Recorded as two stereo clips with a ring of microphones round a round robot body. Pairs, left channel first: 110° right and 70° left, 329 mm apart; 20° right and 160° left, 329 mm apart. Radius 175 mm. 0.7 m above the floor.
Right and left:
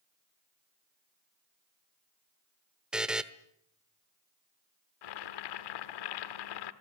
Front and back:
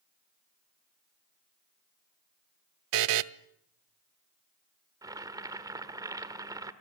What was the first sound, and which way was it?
A buzzer, 155° left.